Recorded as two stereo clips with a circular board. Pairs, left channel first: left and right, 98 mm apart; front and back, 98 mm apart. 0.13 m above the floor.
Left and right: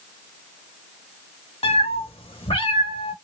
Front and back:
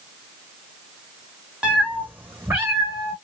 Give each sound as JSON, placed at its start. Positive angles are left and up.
{"t": 1.6, "sound": "a cat meowing", "azimuth_deg": 100, "distance_m": 1.2}